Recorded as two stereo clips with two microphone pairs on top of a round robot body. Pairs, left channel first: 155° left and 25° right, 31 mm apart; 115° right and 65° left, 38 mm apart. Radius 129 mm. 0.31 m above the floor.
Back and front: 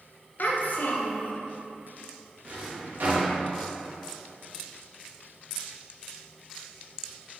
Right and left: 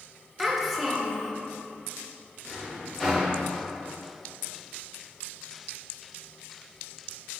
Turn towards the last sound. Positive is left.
turn(degrees=-30)